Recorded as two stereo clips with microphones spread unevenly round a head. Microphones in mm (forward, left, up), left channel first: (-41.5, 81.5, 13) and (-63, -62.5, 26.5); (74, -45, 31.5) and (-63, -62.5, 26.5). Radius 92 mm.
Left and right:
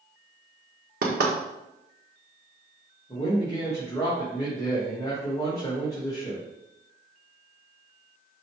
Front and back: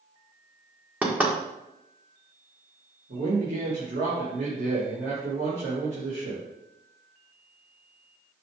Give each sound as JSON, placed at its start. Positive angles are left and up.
{"t": 1.0, "sound": "knocking", "azimuth_deg": -95, "distance_m": 1.6}
{"t": 3.1, "sound": "a man speaking", "azimuth_deg": 150, "distance_m": 3.0}